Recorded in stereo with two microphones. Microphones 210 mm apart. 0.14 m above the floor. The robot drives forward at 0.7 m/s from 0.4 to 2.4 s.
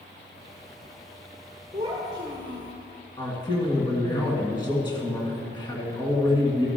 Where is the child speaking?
15° right (ahead or behind), 2 m; by 2.7 s 20° right (ahead or behind), 1.7 m.